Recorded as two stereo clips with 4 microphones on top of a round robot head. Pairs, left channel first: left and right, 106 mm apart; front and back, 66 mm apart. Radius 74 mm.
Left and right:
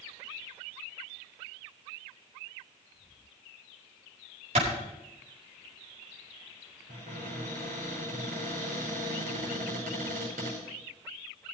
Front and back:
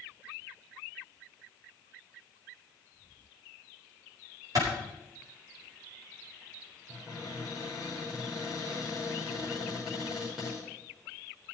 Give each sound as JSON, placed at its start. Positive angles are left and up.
{"t": 4.5, "sound": "a clap", "azimuth_deg": -130, "distance_m": 5.5}
{"t": 6.9, "sound": "a cupboard door", "azimuth_deg": -95, "distance_m": 5.5}